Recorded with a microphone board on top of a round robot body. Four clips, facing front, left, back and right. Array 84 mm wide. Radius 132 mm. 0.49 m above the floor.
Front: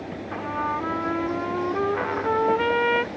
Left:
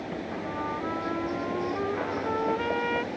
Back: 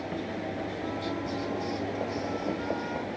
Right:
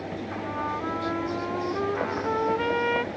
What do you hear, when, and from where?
0.3 s a trumpet: 10° right